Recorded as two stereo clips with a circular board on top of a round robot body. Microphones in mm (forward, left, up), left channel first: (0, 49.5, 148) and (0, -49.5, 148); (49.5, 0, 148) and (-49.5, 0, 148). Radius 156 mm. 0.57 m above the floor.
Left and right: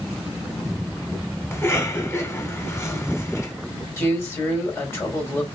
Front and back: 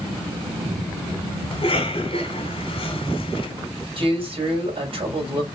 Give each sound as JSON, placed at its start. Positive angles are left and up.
{"t": 1.5, "sound": "a cough", "azimuth_deg": 25, "distance_m": 2.0}
{"t": 4.0, "sound": "a man speaking", "azimuth_deg": 155, "distance_m": 3.0}